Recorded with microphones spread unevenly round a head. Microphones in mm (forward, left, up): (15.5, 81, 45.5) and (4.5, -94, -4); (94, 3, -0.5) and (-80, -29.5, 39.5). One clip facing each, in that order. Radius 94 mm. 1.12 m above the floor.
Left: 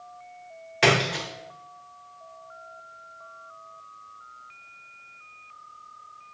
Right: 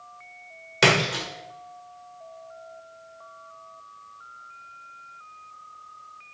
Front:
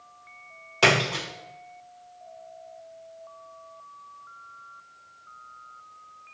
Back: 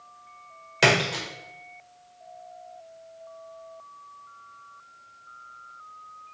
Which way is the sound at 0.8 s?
95° right.